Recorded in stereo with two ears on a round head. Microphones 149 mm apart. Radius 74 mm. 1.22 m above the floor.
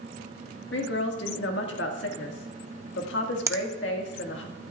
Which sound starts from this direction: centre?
A finger snap, at 3.5 s.